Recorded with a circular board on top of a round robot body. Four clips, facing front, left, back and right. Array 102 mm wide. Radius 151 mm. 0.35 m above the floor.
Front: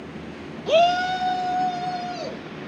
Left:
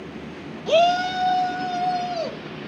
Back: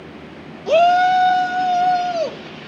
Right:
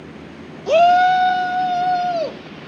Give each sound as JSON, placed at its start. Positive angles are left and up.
{"t": 0.7, "sound": "a shout", "azimuth_deg": -120, "distance_m": 0.8}